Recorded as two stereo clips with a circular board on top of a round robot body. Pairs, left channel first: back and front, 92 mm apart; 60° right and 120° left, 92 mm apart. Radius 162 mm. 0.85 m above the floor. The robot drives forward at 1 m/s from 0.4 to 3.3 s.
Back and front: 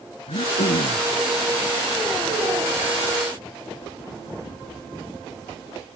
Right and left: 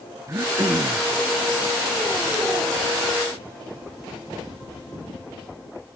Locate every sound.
0.3 s throat clearing: straight behind